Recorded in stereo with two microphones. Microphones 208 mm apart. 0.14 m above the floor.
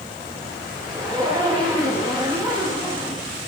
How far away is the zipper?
About 8 m.